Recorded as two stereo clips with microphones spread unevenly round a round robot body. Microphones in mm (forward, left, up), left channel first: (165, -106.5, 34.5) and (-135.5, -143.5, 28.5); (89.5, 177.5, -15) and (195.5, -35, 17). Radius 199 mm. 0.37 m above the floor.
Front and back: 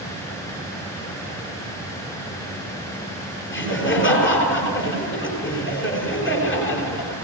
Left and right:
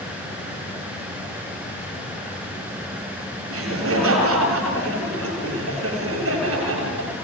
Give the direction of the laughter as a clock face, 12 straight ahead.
1 o'clock.